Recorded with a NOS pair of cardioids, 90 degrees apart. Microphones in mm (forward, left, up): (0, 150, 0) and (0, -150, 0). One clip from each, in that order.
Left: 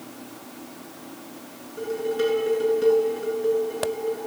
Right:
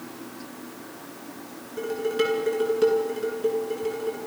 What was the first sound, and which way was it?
Dishes clattering, 45° right.